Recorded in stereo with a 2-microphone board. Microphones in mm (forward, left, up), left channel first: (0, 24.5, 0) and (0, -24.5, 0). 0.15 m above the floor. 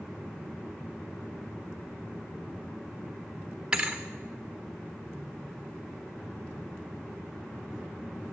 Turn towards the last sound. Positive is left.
turn(degrees=-15)  # may be behind; listen again after turning